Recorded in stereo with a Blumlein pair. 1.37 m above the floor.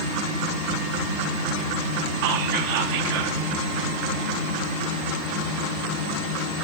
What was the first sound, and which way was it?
Whispering, 45° right.